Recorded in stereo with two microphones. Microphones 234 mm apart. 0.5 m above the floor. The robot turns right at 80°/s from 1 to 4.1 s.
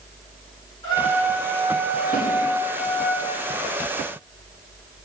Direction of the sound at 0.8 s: 20° left.